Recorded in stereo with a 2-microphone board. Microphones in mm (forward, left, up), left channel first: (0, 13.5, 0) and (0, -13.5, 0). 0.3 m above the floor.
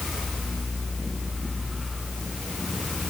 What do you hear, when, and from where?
Only background noise.